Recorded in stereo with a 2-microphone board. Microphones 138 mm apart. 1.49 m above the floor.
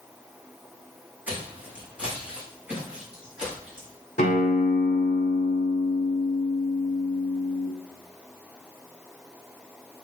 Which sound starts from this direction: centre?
Footsteps, at 1.3 s.